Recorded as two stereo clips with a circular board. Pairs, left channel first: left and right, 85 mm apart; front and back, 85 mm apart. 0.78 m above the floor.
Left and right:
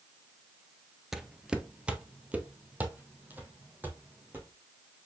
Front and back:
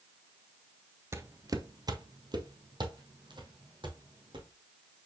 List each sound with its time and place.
1.1 s footsteps: 175° right, 0.8 m; by 4.5 s 160° right, 3 m